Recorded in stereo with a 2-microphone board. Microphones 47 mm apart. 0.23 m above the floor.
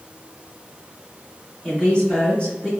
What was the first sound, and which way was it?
A woman speaking, 15° left (ahead or behind).